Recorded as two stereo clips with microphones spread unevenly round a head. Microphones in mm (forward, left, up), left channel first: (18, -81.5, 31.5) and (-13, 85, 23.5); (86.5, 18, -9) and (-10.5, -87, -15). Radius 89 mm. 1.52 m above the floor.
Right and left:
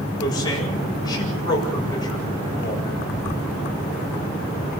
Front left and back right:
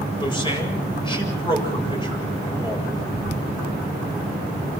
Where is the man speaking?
10° right, 7.5 m.